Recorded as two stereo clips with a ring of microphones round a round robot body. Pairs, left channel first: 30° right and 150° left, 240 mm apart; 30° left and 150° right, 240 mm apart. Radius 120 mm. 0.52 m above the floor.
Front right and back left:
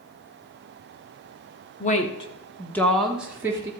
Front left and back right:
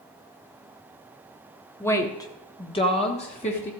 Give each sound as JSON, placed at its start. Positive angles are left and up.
{"t": 1.8, "sound": "a woman speaking", "azimuth_deg": -40, "distance_m": 1.4}